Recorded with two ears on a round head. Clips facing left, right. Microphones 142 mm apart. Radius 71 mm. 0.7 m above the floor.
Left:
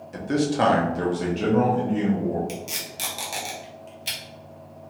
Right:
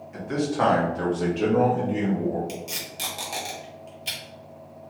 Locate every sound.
0.1 s a man speaking: 40° left (ahead or behind), 1.0 m; by 2.4 s 20° right (ahead or behind), 1.5 m
2.5 s tape being pulled: 5° left (ahead or behind), 1.1 m